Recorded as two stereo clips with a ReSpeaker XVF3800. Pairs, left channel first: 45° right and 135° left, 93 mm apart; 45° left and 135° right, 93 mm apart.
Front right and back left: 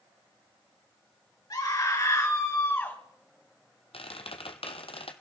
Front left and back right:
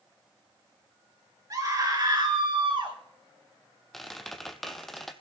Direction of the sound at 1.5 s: 90° right.